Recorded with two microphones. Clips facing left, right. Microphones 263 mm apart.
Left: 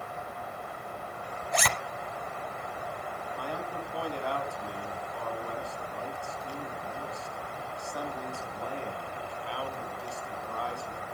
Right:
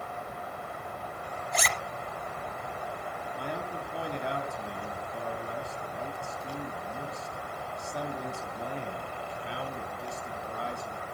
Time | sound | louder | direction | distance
1.5 | a zipper | left 3 dB | 70° left (ahead or behind) | 0.9 m
3.4 | a man speaking | even | 20° right (ahead or behind) | 2.5 m